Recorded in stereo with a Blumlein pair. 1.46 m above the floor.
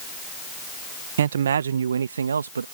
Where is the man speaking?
60° right; by 2.6 s 70° right.